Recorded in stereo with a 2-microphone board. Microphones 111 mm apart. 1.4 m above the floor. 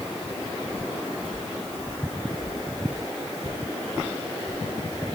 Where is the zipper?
No zipper in this recording.